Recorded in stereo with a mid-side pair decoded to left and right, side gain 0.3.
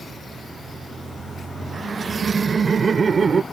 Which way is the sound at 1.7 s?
55° right.